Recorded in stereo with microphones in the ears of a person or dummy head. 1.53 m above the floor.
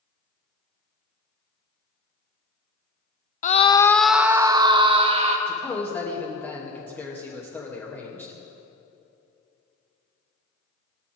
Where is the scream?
45° left (ahead or behind), 0.6 m; by 5.4 s 35° right (ahead or behind), 1.4 m.